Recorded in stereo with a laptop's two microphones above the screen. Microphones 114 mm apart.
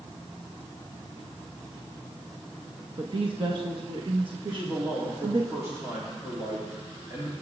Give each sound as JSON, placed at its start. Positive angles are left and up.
{"t": 3.0, "sound": "a woman speaking", "side_deg": -50, "distance_m": 1.2}
{"t": 4.5, "sound": "a man speaking", "side_deg": -25, "distance_m": 2.5}